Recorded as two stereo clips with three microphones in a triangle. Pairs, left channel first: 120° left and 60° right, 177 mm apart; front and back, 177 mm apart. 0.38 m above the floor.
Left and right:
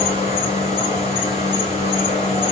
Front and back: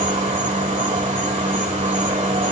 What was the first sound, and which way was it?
An insect, 155° left.